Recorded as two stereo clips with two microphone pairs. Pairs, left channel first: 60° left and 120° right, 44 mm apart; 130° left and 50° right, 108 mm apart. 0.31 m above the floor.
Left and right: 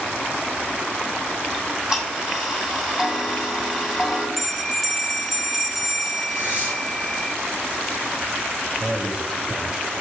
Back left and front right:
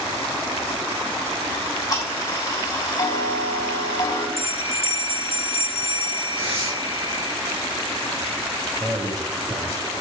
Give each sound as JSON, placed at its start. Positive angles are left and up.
{"t": 1.5, "sound": "ticking", "azimuth_deg": 165, "distance_m": 2.0}
{"t": 4.4, "sound": "a bell", "azimuth_deg": 145, "distance_m": 0.7}
{"t": 6.3, "sound": "tearing paper", "azimuth_deg": -75, "distance_m": 4.5}
{"t": 8.8, "sound": "a man speaking", "azimuth_deg": -65, "distance_m": 1.1}